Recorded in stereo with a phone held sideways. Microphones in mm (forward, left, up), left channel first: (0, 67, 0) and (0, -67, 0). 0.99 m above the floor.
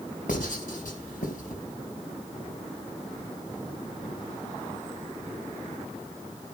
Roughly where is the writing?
Left.